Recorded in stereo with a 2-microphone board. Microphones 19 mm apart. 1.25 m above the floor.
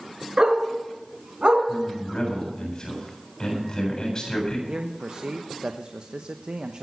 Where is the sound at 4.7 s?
60° right (ahead or behind), 0.9 m.